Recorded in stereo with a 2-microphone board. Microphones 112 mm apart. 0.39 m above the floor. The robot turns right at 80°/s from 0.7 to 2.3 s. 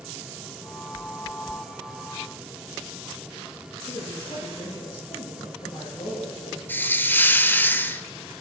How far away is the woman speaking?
About 8 m.